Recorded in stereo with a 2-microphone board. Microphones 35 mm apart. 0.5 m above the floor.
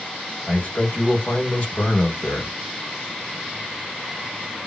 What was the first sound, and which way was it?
A man speaking, 45° left (ahead or behind).